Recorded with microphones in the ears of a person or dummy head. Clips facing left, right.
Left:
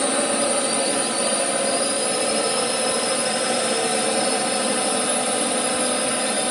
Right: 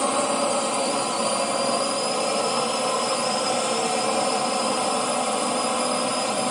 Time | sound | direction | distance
0.0 | a drone | 15° left (ahead or behind) | ?